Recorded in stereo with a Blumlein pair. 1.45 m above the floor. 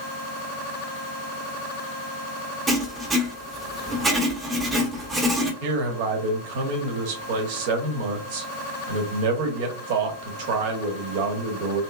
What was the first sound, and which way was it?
Writing, 15° right.